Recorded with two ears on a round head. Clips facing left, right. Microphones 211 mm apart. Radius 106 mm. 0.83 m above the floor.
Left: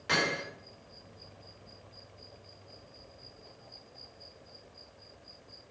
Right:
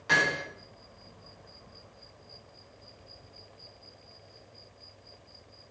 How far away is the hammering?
About 3.5 m.